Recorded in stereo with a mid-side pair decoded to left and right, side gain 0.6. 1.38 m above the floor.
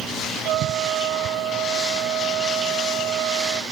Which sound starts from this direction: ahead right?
A trumpet, at 0.5 s.